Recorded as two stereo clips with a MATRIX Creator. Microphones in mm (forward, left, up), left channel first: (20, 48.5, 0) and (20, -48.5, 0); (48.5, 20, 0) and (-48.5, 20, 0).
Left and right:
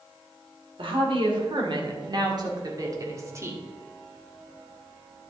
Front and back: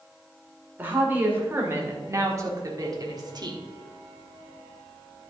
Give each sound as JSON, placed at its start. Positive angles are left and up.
{"t": 0.8, "sound": "a woman speaking", "azimuth_deg": -110, "distance_m": 2.5}